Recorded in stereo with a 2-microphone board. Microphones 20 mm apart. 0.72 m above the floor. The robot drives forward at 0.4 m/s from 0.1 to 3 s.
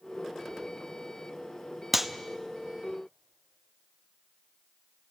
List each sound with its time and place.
1.9 s a clap: 10° right (ahead or behind), 0.7 m